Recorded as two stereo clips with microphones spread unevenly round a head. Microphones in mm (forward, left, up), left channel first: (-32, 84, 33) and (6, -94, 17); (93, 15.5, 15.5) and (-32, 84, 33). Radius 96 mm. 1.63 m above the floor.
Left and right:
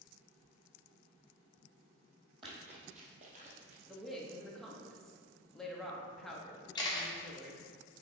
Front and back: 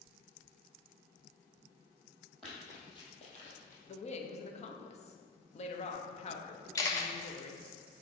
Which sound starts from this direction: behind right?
Running footsteps, at 2.4 s.